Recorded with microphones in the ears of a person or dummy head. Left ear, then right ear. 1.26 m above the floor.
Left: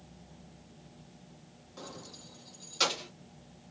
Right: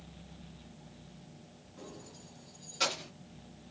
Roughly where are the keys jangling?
Left.